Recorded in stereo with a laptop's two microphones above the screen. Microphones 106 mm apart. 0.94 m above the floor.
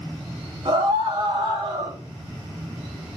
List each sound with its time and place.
0.7 s a scream: 70° right (ahead or behind), 5 m; by 2.0 s 60° right (ahead or behind), 5 m